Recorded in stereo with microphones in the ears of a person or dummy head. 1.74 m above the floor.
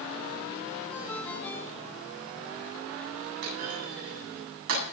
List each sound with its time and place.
0.9 s a ringtone: 10° left (ahead or behind), 3.5 m
3.4 s a clunk: 75° right (ahead or behind), 8 m